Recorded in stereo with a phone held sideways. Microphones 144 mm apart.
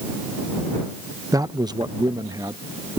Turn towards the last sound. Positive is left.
turn(degrees=-25)  # may be behind; listen again after turning